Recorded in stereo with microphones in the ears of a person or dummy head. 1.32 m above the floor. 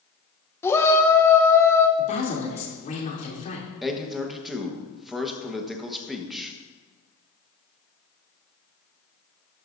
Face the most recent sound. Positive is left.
turn(degrees=5)  # may be behind; listen again after turning